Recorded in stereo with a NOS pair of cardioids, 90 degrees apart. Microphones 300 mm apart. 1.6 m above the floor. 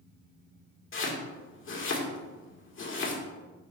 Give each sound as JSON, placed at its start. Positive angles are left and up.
{"t": 0.9, "sound": "chopping", "azimuth_deg": 40, "distance_m": 2.0}